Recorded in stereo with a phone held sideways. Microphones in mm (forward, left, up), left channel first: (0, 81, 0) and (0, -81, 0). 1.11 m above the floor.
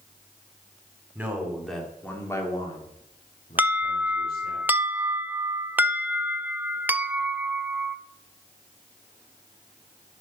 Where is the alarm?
10° right (ahead or behind), 0.6 m.